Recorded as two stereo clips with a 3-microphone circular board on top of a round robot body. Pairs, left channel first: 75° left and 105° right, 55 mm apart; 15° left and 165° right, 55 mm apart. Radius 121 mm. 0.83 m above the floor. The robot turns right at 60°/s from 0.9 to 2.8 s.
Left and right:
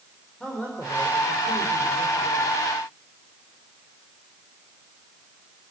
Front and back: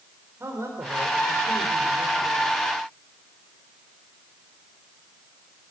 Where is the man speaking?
150° left, 4 m; by 2.5 s 115° right, 4 m.